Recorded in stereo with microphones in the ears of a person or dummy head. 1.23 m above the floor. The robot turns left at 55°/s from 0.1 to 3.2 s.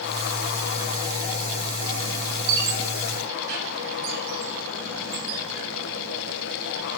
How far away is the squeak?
About 1.9 m.